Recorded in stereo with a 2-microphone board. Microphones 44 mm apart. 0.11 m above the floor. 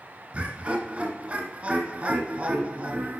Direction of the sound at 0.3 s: 25° right (ahead or behind).